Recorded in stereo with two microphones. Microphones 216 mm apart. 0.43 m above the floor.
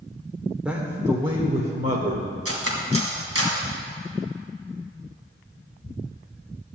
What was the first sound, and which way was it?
A man speaking, 5° right (ahead or behind).